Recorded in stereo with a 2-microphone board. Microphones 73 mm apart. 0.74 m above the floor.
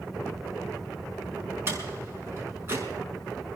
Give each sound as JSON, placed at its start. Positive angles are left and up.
{"t": 1.7, "sound": "a door slam", "side_deg": -30, "distance_m": 5.5}